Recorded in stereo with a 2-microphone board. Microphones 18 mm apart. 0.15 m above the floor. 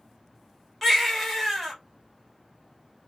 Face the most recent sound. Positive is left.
turn(degrees=5)  # may be behind; listen again after turning